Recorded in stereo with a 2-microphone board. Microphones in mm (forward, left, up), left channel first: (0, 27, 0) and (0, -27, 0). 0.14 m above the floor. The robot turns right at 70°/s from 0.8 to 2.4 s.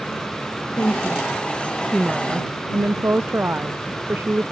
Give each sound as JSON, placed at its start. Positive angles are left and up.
{"t": 0.8, "sound": "a woman speaking", "azimuth_deg": 110}